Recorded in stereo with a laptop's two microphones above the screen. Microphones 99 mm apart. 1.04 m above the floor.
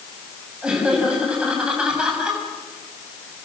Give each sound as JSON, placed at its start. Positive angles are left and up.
{"t": 0.6, "sound": "laughter", "side_deg": -10, "distance_m": 7.0}